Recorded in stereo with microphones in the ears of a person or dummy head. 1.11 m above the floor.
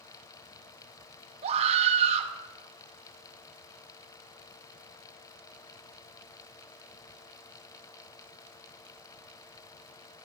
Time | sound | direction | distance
1.4 | a scream | 40° right (ahead or behind) | 1.4 m